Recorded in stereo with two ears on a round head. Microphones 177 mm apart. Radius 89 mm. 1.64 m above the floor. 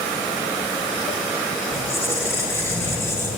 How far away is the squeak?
About 4.5 m.